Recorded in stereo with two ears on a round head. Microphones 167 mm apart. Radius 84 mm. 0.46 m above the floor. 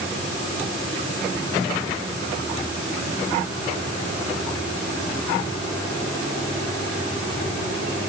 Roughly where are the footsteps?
I don't hear footsteps.